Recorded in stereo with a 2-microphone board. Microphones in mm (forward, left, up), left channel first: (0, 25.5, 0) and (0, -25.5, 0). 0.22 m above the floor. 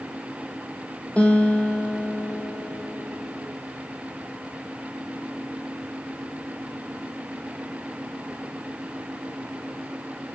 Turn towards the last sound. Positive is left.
turn(degrees=25)  # may be behind; listen again after turning